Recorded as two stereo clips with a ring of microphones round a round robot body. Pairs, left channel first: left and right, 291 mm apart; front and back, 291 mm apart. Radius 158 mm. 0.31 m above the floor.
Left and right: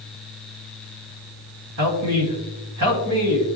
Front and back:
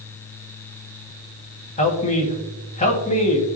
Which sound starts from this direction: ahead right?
A man speaking, at 1.8 s.